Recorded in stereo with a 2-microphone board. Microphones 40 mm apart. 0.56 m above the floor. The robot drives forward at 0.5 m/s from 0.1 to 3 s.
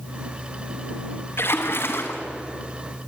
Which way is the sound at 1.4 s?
80° left.